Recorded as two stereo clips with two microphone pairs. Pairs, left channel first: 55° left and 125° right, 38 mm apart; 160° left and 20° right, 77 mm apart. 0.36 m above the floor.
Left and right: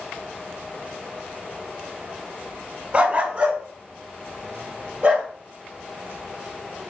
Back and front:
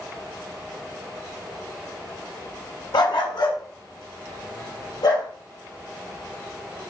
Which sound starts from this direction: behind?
A dog barking, at 2.9 s.